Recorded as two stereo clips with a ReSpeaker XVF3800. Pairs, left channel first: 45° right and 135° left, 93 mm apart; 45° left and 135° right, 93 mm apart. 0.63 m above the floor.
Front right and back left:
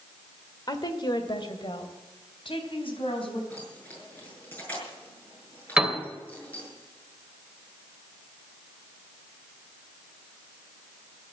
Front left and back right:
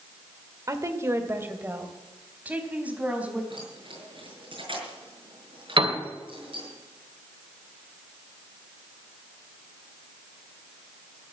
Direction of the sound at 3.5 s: 115° right.